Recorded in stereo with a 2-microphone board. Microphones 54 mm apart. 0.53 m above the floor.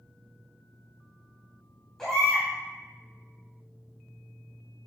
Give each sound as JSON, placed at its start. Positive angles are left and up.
{"t": 2.0, "sound": "a baby crying", "side_deg": 5, "distance_m": 2.5}